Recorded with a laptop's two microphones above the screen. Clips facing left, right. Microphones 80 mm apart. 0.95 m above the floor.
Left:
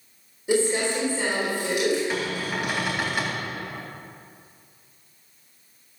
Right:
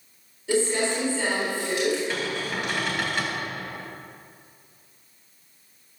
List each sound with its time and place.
0.5 s crumpling: 15° left (ahead or behind), 3.5 m
2.1 s a cupboard door: 10° left (ahead or behind), 3.5 m